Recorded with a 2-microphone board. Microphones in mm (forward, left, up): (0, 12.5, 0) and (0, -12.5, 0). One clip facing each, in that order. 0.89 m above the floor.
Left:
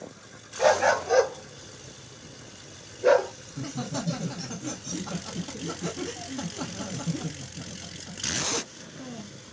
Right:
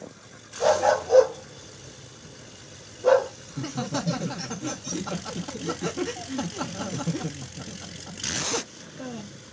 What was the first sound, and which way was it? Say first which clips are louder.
A dog barking: even; 65° left (ahead or behind).